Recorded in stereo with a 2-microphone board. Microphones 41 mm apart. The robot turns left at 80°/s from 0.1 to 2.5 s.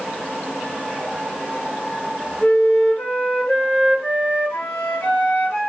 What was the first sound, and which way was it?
A flute, 55° left (ahead or behind).